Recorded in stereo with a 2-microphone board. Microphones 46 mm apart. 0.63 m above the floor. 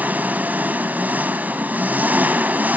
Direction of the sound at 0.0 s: 40° right (ahead or behind).